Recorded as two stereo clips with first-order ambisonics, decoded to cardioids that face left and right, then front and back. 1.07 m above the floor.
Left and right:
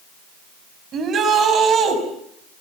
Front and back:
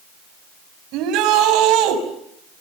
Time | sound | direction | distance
0.9 | a shout | 150° right | 6 m